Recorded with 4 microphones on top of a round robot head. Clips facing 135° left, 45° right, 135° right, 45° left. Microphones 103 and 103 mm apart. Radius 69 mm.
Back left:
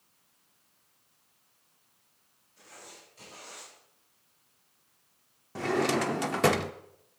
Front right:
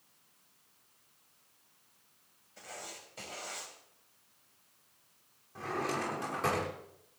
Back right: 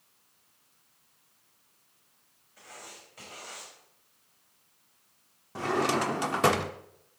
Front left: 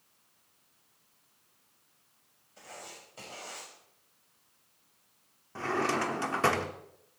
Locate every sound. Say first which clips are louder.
2.6 s writing: front right 4 dB, front left 1 dB; 15° right, 6 m
5.5 s a drawer: back left 8 dB, back right 3 dB; 155° left, 1.0 m